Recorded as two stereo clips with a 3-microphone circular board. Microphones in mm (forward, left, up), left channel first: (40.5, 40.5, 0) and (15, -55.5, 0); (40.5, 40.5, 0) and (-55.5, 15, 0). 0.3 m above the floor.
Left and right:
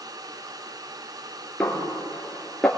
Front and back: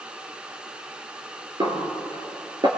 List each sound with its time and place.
1.6 s a snare drum: 155° left, 3 m